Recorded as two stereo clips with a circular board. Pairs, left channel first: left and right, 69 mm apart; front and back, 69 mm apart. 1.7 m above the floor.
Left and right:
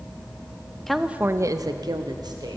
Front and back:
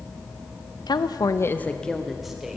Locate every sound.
0.9 s a woman speaking: 5° left, 0.6 m; by 2.6 s 100° right, 1.3 m